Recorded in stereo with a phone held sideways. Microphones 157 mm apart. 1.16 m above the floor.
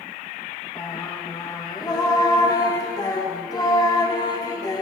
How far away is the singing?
About 1.4 m.